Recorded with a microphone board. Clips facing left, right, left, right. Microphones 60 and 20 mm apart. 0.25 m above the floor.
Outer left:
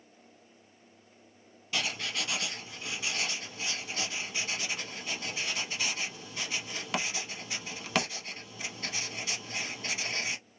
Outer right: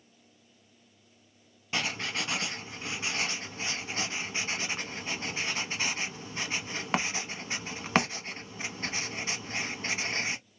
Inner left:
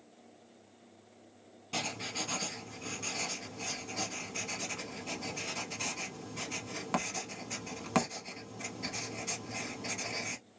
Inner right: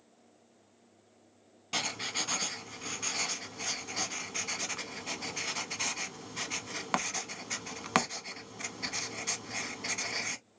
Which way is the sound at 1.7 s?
35° right (ahead or behind).